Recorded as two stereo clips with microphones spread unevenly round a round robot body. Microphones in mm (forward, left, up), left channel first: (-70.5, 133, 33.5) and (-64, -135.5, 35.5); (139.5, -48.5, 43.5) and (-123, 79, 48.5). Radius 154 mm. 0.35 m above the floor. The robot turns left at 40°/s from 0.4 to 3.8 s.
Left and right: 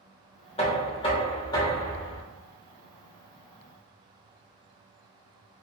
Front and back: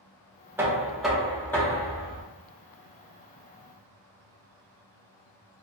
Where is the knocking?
80° left, 0.7 m; by 2.2 s 15° left, 0.7 m.